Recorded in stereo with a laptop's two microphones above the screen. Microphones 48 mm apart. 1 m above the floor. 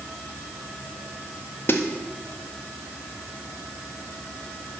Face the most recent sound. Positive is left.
turn(degrees=50)  # may be behind; listen again after turning